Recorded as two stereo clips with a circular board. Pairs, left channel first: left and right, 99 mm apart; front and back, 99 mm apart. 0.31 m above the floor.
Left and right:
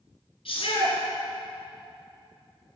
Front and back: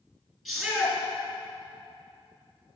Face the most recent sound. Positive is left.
turn(degrees=90)